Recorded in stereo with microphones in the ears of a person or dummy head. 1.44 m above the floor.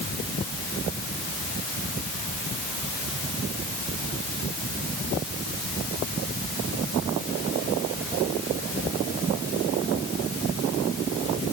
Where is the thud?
I don't hear a thud.